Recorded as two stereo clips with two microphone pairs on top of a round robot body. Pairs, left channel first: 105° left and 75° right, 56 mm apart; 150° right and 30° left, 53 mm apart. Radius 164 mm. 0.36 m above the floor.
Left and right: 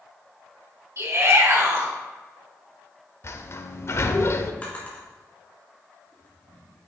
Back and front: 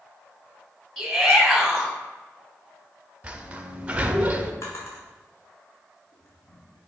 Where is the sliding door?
90° left, 0.8 m.